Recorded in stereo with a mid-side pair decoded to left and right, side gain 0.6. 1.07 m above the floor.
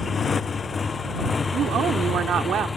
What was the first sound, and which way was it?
A motorcycle, 30° left.